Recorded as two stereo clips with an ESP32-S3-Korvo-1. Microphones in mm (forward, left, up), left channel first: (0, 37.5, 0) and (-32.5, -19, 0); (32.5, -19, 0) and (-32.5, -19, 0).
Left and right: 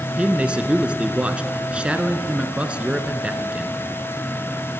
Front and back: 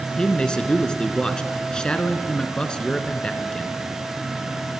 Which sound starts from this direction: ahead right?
A man speaking, at 0.1 s.